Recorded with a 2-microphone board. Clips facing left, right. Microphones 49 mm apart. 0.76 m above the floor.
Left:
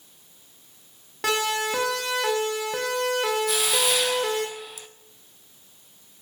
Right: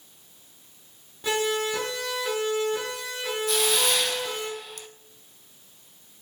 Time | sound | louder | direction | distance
1.2 | a siren | left 1 dB | 85° left | 6 m
3.5 | a hiss | even | 5° left (ahead or behind) | 1.0 m